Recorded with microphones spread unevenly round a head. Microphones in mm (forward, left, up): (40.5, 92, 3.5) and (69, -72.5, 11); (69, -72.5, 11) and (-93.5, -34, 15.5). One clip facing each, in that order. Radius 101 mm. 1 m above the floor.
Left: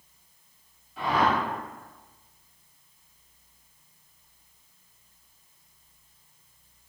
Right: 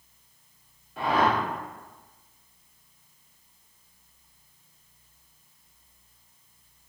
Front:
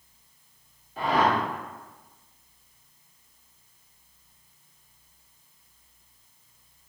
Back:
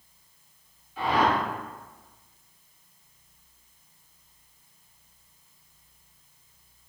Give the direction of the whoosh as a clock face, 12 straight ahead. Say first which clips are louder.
Right 1 dB, even; 2 o'clock.